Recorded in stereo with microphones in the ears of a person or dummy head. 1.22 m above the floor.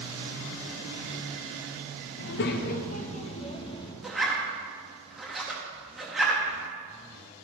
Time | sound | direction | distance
2.2 | a child speaking | 60° left (ahead or behind) | 0.7 m
4.0 | a zipper | centre (ahead or behind) | 1.0 m